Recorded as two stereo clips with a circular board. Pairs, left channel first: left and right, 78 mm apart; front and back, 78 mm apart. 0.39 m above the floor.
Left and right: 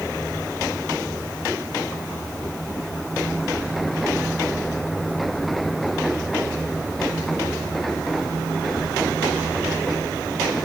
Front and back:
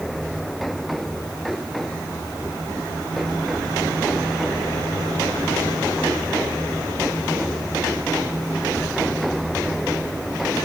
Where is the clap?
No clap in this recording.